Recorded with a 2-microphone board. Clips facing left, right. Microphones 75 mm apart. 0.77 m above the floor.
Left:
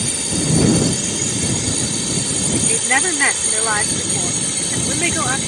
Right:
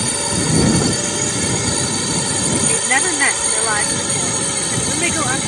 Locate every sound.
0.0 s a drone: 55° right (ahead or behind)
2.7 s a woman speaking: centre (ahead or behind)